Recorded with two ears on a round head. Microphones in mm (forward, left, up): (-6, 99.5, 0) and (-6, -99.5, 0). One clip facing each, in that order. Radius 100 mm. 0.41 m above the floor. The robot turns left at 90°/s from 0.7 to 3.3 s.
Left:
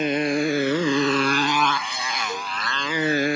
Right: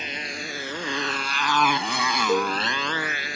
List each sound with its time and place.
0.0 s a motorcycle: 45° left (ahead or behind); by 3.4 s 50° left (ahead or behind)
2.3 s a cowbell: 20° right (ahead or behind); by 2.6 s 45° right (ahead or behind)